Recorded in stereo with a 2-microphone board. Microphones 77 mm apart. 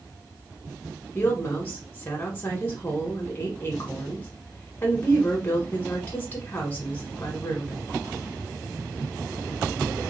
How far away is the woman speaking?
About 1.0 m.